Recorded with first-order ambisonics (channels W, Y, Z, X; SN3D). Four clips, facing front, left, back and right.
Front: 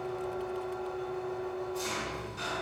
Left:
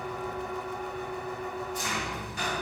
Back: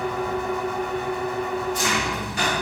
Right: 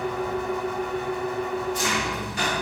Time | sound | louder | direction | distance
0.0 | an engine running | right 7 dB, back 10 dB | 150° right | 1.3 m